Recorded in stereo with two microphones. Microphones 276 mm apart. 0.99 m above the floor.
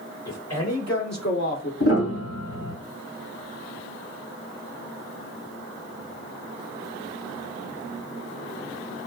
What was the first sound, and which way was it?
A man speaking, 65° left (ahead or behind).